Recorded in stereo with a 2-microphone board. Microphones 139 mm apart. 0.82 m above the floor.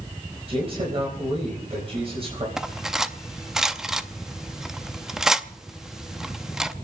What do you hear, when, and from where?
0.5 s a man speaking: 45° right (ahead or behind), 4 m
2.6 s cutlery clinking: 5° right (ahead or behind), 0.5 m